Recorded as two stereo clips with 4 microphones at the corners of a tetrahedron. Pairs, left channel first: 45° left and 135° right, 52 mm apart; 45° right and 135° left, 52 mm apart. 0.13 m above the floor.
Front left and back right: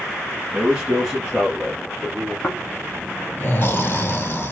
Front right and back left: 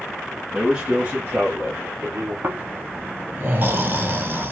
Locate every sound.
0.5 s a man speaking: 170° right, 1.1 m; by 2.3 s 135° left, 2.0 m
2.4 s snoring: 90° left, 0.6 m